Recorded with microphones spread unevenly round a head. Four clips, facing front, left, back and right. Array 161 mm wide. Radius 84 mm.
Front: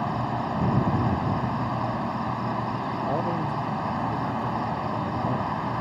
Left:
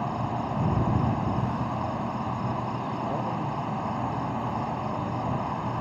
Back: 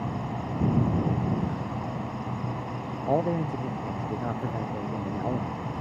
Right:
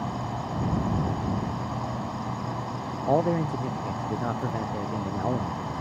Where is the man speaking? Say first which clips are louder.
Right 11 dB, back 4 dB; 130° right.